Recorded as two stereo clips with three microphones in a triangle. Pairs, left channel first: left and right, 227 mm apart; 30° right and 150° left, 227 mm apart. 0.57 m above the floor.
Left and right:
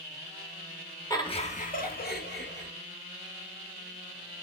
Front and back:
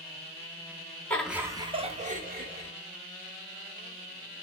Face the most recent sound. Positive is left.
turn(degrees=115)